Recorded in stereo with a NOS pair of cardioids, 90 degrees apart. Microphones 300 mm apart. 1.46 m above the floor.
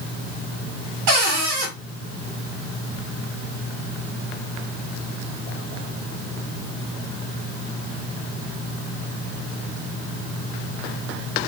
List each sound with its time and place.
1.1 s a cupboard door: 70° right, 1.7 m